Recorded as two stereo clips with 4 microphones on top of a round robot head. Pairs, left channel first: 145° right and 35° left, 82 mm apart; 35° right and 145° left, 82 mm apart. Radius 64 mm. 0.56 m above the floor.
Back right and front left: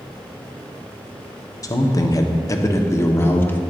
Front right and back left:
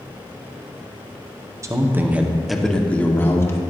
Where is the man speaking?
175° right, 1.1 m; by 3.6 s 85° right, 1.5 m.